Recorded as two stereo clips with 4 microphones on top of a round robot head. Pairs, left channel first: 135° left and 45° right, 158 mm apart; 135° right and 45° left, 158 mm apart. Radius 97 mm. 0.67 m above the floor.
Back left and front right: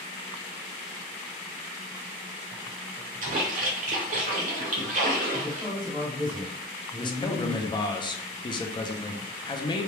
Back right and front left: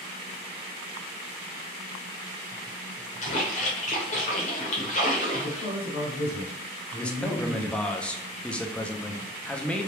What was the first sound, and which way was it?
A splash, 85° right.